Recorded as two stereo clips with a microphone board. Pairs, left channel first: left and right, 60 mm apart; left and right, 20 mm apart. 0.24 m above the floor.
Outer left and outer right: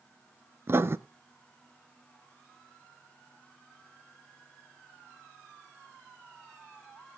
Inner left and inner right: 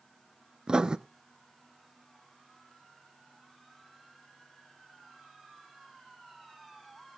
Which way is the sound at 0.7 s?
45° right (ahead or behind).